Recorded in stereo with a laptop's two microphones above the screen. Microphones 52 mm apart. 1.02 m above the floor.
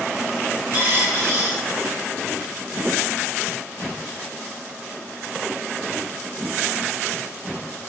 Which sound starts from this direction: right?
A dropped coin, at 0.7 s.